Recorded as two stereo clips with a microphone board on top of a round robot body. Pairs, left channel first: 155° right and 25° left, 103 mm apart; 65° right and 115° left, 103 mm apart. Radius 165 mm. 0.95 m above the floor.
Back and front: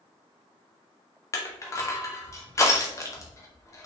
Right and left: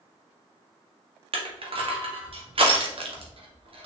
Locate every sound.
1.3 s crushing: 140° left, 1.6 m